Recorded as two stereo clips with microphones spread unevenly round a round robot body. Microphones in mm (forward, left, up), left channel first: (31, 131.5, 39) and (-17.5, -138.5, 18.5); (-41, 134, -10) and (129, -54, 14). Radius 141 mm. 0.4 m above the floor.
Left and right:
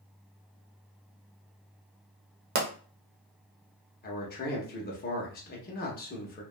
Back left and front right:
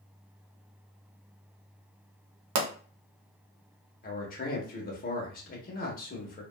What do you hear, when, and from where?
2.5 s a pop: 55° right, 0.7 m
4.0 s a man speaking: 120° left, 0.9 m